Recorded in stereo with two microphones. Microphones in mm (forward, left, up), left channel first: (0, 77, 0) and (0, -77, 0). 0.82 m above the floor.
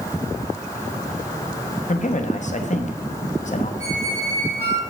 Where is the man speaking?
50° left (ahead or behind), 0.9 m.